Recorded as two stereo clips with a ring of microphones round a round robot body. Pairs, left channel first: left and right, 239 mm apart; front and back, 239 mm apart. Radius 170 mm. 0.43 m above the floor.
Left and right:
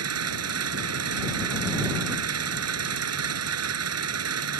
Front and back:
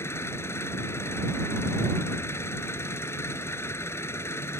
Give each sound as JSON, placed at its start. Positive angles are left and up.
{"t": 0.0, "sound": "an engine running", "azimuth_deg": -85}